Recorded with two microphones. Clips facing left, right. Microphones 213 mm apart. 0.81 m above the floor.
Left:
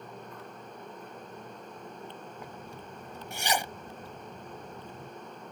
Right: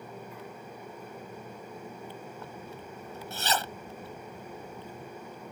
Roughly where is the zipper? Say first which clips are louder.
Right 1 dB; centre.